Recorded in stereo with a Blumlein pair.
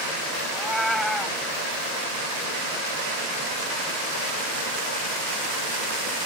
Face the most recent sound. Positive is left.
turn(degrees=0)